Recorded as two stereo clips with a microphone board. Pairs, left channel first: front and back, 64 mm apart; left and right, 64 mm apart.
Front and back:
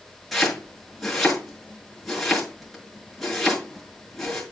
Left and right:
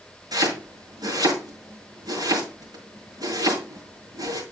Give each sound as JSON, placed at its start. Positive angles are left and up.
{"t": 0.3, "sound": "chopping", "azimuth_deg": -90, "distance_m": 6.5}